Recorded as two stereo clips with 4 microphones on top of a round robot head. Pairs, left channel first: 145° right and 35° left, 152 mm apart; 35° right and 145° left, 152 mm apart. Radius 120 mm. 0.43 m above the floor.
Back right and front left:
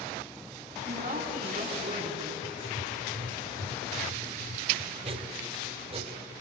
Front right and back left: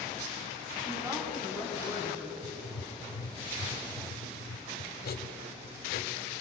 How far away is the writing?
About 1.5 m.